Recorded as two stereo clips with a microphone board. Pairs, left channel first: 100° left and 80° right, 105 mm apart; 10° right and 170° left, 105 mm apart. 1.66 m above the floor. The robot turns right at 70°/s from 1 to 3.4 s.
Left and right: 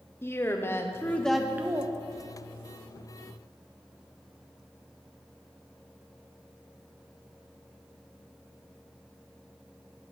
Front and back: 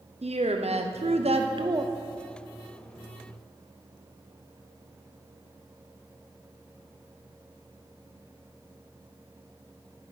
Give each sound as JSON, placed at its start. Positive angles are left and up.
{"t": 0.2, "sound": "a woman speaking", "azimuth_deg": 165, "distance_m": 0.8}